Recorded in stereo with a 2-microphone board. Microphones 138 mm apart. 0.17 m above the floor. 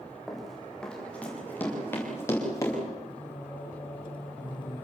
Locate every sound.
0.3 s running footsteps: centre (ahead or behind), 8.5 m; by 2.8 s 25° left (ahead or behind), 9.5 m
3.1 s singing: 35° left (ahead or behind), 4.5 m